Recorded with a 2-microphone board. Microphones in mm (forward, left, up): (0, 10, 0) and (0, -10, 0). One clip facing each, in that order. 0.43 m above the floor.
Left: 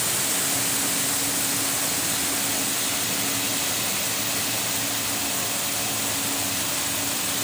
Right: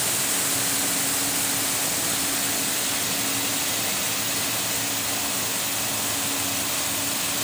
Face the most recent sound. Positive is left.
No sound to turn to.